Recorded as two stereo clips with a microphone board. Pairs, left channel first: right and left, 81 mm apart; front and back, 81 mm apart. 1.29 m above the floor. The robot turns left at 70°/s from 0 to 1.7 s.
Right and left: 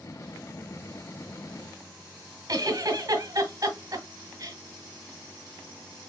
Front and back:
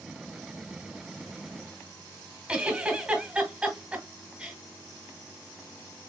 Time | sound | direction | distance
2.5 | a giggle | 110° left | 1.4 m